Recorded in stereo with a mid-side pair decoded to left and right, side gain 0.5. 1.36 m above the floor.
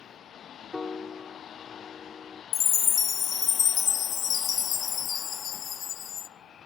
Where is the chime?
55° left, 0.6 m.